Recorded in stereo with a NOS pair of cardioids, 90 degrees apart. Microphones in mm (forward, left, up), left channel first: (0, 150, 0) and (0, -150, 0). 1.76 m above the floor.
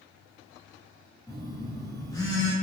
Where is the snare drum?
I don't hear a snare drum.